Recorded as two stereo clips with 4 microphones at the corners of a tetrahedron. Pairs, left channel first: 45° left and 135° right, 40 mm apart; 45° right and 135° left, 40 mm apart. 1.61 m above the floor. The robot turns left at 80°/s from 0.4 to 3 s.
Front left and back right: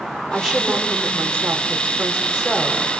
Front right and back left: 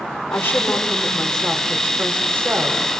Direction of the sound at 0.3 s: 40° right.